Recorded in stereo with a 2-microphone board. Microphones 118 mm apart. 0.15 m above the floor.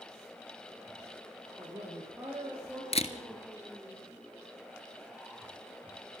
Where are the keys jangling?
I don't hear keys jangling.